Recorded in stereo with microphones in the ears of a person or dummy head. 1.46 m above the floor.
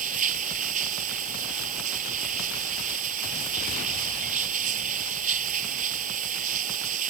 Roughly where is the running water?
Right.